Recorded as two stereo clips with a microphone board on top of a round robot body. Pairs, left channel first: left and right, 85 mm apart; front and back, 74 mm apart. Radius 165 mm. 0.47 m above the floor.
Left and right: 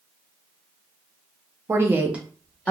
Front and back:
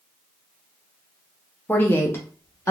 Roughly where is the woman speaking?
Ahead right.